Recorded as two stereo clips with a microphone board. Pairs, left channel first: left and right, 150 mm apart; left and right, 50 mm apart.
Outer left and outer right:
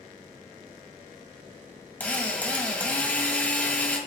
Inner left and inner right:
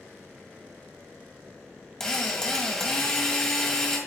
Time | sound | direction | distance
2.0 | a drill | 10° left (ahead or behind) | 1.9 m